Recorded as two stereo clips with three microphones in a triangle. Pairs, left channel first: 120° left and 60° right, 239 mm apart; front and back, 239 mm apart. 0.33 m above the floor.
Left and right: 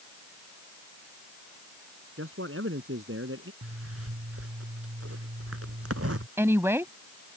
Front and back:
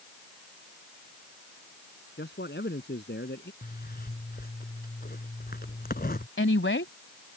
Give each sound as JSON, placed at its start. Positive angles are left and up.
{"t": 2.2, "sound": "a man speaking", "azimuth_deg": -40}
{"t": 3.6, "sound": "a zipper", "azimuth_deg": -50}
{"t": 6.4, "sound": "a woman speaking", "azimuth_deg": 20}